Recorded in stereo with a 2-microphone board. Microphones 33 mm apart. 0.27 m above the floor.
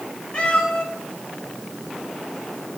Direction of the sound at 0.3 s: 30° left (ahead or behind).